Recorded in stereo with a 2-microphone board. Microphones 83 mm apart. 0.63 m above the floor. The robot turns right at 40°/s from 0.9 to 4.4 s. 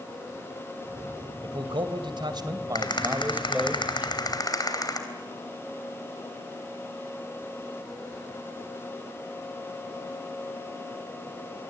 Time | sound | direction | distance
1.4 | a man speaking | 100° right | 2.5 m
2.8 | a rattle | 60° left | 3 m